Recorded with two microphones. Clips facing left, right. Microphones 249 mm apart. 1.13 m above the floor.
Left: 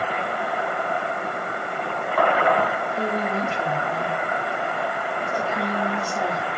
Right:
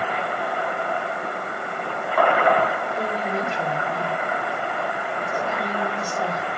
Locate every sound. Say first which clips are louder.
3.0 s a woman speaking: left 3 dB; 20° right (ahead or behind), 4 m